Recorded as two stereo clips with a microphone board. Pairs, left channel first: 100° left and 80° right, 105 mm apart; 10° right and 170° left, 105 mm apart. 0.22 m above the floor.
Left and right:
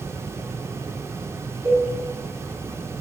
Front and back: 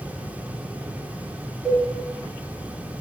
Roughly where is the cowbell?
Right.